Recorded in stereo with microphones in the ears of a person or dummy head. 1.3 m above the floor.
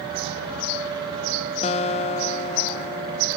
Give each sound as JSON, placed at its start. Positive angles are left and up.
{"t": 1.6, "sound": "a guitar", "side_deg": 30, "distance_m": 0.6}